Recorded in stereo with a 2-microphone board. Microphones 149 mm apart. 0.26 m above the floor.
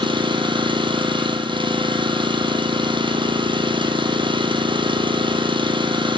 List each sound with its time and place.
0.0 s an engine running: 30° right (ahead or behind), 2.5 m